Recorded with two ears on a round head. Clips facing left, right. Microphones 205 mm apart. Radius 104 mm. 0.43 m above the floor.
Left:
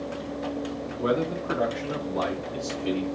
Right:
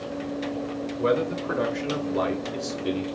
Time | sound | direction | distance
1.0 | a man speaking | 40° right (ahead or behind) | 1.9 m